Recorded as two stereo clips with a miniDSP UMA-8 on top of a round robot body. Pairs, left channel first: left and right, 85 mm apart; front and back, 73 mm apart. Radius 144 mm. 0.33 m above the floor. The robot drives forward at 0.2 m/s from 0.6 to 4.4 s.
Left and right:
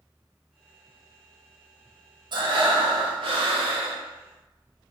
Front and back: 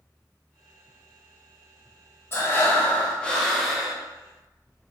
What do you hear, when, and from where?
2.3 s breathing: 60° right, 0.5 m; by 4.0 s 95° right, 0.5 m